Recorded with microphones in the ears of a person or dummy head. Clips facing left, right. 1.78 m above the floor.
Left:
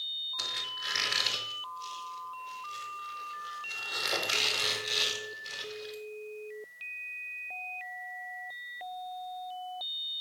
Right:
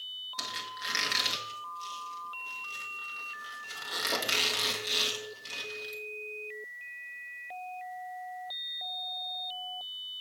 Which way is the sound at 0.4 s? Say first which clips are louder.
Right 3 dB; 55° right (ahead or behind).